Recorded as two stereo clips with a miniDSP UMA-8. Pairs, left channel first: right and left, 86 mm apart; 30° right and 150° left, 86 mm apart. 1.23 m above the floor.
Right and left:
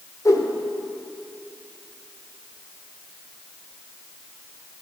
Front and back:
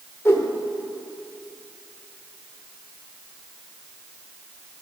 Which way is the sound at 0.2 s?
70° right.